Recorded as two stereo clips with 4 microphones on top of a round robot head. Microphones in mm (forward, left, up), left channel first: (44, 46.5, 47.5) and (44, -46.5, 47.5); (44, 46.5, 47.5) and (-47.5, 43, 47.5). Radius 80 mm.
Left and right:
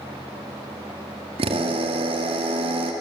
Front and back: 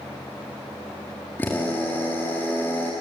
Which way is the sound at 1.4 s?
75° right.